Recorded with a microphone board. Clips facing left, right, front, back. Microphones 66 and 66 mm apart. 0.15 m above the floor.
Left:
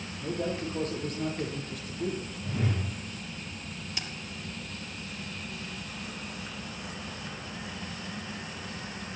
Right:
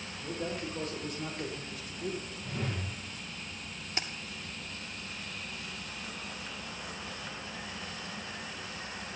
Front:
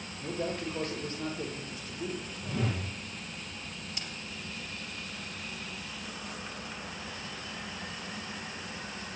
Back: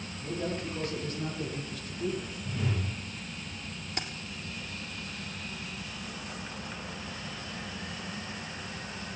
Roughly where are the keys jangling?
Behind right.